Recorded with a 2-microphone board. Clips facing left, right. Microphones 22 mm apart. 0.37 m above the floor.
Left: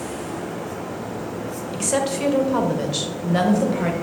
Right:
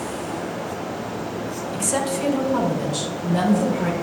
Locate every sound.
1.7 s a woman speaking: 25° left (ahead or behind), 1.4 m; by 3.9 s 45° left (ahead or behind), 1.9 m